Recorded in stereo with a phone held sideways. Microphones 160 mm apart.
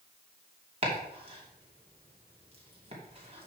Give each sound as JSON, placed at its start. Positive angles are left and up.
{"t": 0.8, "sound": "chopping", "side_deg": -40, "distance_m": 2.5}